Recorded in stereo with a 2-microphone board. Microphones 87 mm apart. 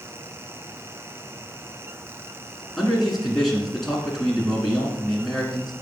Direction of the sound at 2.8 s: Centre (ahead or behind).